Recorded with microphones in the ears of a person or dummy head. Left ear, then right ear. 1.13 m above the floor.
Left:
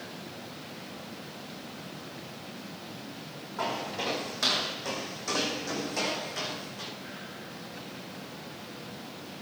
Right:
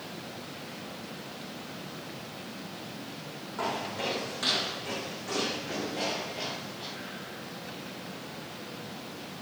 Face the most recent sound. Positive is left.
turn(degrees=70)  # may be behind; listen again after turning